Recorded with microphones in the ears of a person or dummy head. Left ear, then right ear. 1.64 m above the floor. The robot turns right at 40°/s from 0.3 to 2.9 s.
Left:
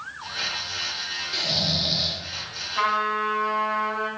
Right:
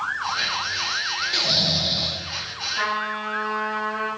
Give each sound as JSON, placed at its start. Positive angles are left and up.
{"t": 1.3, "sound": "snoring", "azimuth_deg": -10, "distance_m": 2.0}
{"t": 2.8, "sound": "a trumpet", "side_deg": 60, "distance_m": 6.0}